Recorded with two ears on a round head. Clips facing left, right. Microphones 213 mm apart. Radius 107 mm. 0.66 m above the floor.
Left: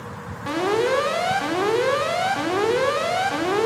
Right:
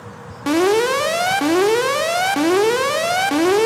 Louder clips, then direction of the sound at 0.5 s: Right 6 dB; 65° right (ahead or behind).